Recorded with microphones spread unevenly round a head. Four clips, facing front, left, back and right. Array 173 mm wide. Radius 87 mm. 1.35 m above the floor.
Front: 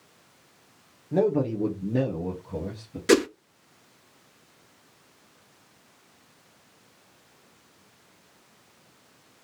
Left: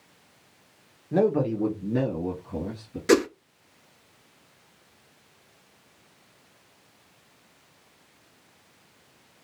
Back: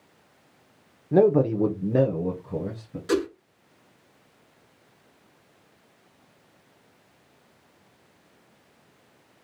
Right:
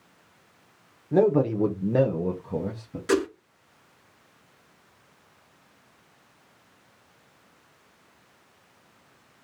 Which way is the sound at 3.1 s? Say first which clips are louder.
Left 4 dB, front 5 dB; 25° left.